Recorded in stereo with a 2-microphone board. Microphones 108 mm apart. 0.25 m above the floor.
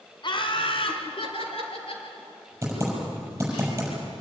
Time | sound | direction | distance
0.2 | laughter | 50° left (ahead or behind) | 2 m
2.6 | typing on a keyboard | 25° right (ahead or behind) | 6.5 m